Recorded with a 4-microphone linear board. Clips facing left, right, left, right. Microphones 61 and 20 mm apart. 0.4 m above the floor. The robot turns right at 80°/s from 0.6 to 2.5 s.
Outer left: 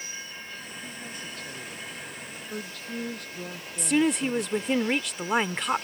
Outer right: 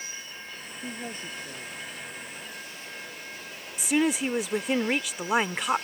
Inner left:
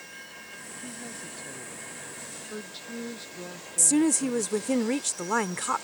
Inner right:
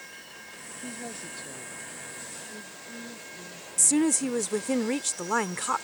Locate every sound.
0.8 s a woman speaking: 60° right; by 4.8 s 75° left
3.8 s a woman speaking: 5° right (ahead or behind)